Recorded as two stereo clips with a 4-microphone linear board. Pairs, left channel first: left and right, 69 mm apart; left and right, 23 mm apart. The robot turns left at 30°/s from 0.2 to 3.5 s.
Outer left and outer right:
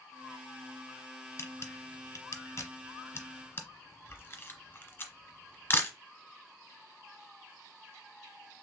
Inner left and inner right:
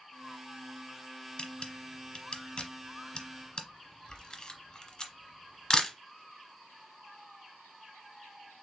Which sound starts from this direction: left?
A camera shutter, at 1.4 s.